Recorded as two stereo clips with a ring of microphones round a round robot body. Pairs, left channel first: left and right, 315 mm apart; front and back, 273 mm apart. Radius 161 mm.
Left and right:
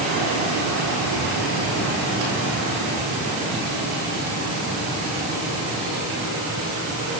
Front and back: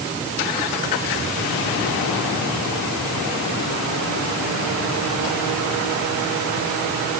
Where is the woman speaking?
No woman speaking in this recording.